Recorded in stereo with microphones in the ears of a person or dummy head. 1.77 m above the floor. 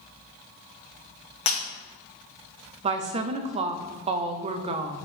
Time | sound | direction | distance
1.5 | breaking glass | 35° left (ahead or behind) | 1.2 m
2.8 | a woman speaking | 35° right (ahead or behind) | 0.7 m